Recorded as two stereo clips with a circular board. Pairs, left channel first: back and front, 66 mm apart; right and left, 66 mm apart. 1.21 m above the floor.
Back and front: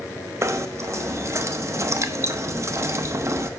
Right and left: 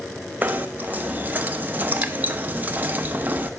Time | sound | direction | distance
0.4 | knocking | 35° left | 0.7 m